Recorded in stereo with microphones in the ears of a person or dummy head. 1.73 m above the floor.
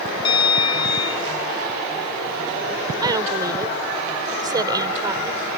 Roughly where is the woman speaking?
Right.